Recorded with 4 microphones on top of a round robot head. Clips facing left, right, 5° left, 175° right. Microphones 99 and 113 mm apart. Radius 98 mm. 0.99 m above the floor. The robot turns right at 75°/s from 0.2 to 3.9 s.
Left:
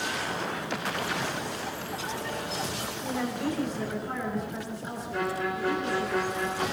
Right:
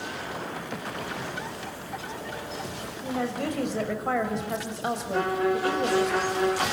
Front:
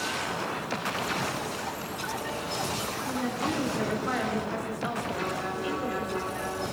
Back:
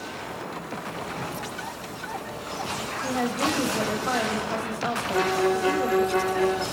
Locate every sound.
3.0 s a woman speaking: 175° right, 5.5 m; by 6.1 s 110° right, 5.5 m
5.1 s a violin: 150° right, 3.5 m